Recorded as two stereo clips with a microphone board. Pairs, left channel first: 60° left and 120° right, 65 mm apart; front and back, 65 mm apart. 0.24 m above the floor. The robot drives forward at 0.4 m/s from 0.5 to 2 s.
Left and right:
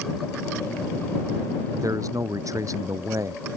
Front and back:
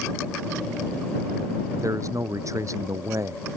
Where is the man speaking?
145° right; by 3.4 s 150° right.